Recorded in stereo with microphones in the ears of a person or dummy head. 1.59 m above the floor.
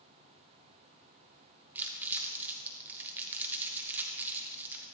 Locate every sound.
1.8 s crumpling: 10° right (ahead or behind), 1.3 m